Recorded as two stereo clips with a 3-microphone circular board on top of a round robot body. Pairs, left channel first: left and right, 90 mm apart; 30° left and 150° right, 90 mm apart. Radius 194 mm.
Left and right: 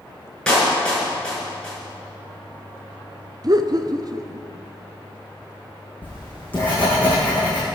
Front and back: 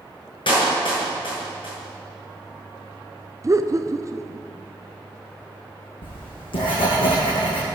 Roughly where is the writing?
Ahead.